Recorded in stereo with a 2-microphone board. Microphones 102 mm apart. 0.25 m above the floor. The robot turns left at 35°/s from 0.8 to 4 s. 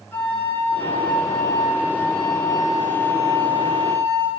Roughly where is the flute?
Ahead.